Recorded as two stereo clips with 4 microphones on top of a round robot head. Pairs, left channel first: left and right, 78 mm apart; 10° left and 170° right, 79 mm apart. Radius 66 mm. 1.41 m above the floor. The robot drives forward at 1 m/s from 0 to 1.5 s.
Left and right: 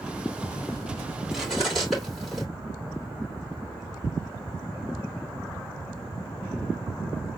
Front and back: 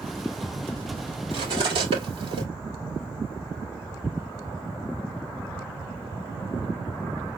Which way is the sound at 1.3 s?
Straight behind.